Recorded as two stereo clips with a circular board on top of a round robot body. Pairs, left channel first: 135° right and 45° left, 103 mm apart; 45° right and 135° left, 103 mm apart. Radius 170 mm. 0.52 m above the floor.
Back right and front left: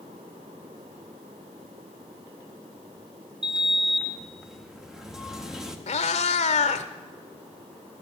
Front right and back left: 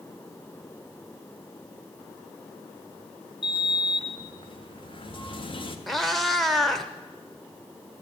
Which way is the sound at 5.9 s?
135° right.